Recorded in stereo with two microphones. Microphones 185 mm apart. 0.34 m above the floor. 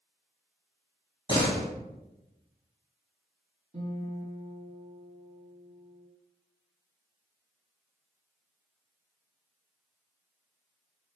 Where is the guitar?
40° right (ahead or behind), 2 m.